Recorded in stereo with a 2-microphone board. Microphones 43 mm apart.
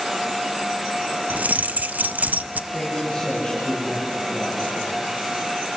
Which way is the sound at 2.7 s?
5° left (ahead or behind).